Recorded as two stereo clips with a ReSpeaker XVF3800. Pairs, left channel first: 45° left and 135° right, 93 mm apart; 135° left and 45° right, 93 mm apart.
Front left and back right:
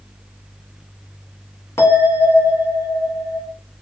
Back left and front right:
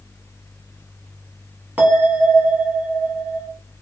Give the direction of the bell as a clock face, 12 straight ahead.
11 o'clock.